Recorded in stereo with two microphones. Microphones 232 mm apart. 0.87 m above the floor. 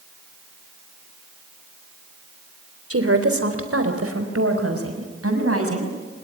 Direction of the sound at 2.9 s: 75° right (ahead or behind).